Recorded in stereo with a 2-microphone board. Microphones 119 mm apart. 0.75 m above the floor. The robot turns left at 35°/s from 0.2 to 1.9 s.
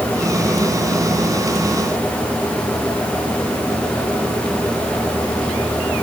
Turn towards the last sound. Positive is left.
No sound to turn to.